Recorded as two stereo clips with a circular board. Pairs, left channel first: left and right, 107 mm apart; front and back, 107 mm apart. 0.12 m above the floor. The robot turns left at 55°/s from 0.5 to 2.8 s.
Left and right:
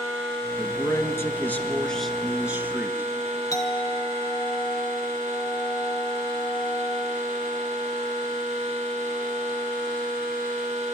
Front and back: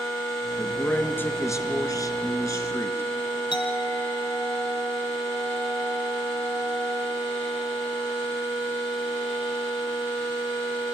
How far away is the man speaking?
About 1.6 m.